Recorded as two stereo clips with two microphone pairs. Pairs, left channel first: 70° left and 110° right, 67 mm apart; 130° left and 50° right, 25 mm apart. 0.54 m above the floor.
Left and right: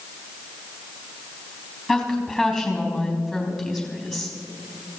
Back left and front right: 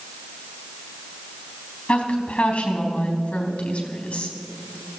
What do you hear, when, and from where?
1.9 s a woman speaking: 155° left, 3.5 m